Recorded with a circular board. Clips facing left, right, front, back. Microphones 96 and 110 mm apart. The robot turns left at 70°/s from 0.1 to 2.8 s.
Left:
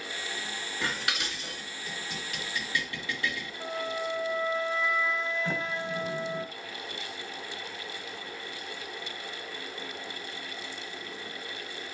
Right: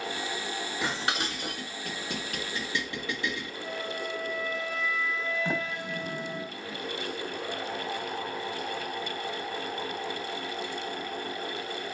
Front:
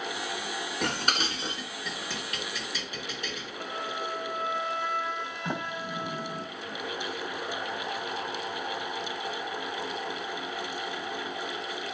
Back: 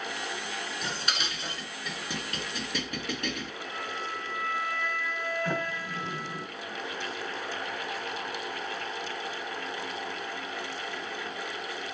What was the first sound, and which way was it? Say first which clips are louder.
Dishes clattering: right 2 dB, front 7 dB; 20° right.